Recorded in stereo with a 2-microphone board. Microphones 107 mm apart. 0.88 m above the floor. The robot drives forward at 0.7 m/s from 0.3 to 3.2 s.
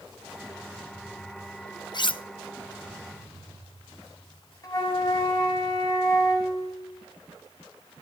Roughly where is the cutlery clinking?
Left.